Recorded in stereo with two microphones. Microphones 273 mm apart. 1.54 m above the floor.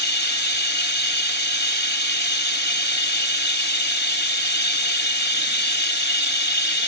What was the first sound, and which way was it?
Running water, 40° left (ahead or behind).